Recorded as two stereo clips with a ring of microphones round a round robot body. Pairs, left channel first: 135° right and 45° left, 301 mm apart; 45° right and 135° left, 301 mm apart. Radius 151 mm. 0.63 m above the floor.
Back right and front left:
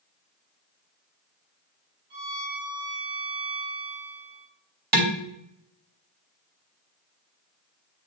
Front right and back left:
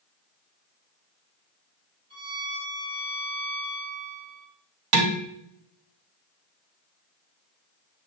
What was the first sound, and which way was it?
A violin, 65° left.